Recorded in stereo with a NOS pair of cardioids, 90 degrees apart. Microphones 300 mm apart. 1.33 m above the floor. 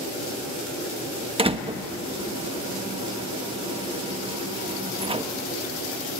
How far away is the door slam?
About 1.2 m.